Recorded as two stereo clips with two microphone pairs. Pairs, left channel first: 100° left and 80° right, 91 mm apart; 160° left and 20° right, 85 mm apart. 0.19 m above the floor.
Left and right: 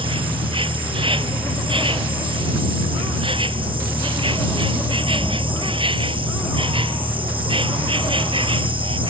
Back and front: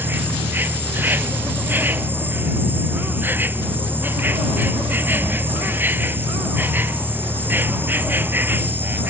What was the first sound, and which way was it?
An insect, 85° right.